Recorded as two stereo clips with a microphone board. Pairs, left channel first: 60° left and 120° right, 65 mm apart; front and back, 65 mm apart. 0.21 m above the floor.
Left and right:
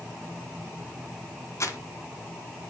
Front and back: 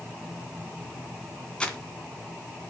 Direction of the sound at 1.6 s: 70° left.